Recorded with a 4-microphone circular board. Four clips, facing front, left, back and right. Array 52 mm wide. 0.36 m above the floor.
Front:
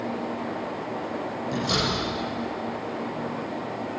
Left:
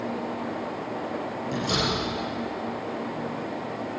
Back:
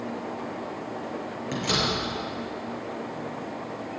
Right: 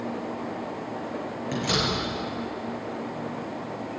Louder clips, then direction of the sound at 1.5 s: Even, even; 135° right.